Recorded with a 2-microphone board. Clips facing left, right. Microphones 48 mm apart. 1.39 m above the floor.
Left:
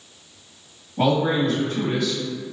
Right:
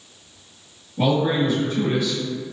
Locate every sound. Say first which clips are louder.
1.0 s a man speaking: even; 85° left, 1.5 m